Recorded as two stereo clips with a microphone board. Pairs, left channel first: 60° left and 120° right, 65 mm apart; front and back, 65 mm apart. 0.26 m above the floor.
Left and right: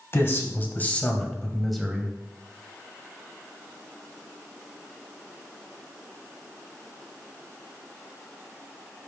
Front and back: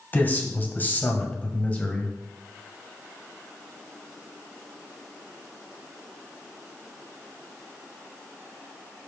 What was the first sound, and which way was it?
A man speaking, 45° left.